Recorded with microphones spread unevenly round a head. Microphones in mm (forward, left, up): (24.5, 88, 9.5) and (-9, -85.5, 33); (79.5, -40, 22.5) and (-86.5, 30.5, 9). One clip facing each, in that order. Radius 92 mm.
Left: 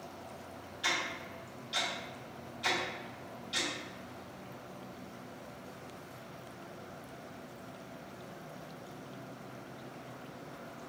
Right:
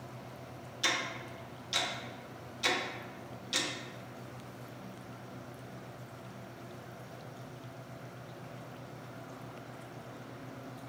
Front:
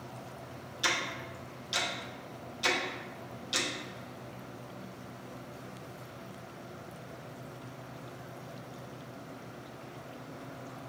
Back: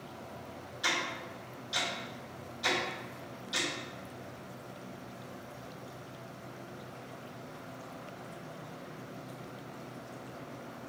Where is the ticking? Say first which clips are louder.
Right 1 dB, front 1 dB; 75° right, 0.9 m.